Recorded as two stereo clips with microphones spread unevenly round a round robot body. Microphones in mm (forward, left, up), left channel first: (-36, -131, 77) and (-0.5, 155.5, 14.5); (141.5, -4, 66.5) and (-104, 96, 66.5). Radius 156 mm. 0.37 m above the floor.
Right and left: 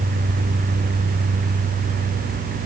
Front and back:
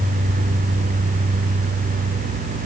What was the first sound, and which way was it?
Only background noise.